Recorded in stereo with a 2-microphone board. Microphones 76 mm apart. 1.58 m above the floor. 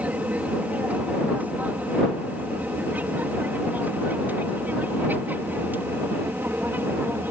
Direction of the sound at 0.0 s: 20° right (ahead or behind).